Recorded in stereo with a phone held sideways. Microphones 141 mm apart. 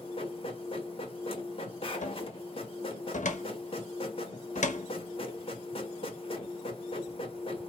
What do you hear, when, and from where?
0.0 s a machine running: 40° left (ahead or behind), 1.1 m
2.0 s a cupboard door: 60° left (ahead or behind), 1.0 m